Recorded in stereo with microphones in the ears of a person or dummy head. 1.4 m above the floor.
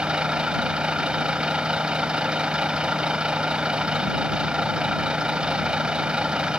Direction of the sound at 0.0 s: 5° right (ahead or behind).